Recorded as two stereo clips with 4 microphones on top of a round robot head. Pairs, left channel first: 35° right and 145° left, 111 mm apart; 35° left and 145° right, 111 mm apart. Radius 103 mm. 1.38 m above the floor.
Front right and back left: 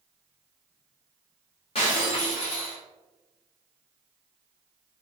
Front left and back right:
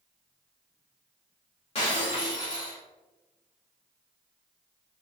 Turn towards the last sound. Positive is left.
turn(degrees=0)